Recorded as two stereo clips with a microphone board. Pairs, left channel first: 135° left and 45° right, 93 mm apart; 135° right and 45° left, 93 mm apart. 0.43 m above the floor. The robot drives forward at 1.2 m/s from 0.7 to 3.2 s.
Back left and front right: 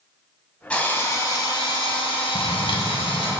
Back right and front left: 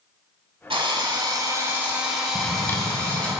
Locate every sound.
0.7 s a drill: 60° left, 1.5 m; by 3.4 s 150° left, 2.5 m
2.4 s a drawer: 145° left, 0.6 m; by 3.3 s 165° left, 1.5 m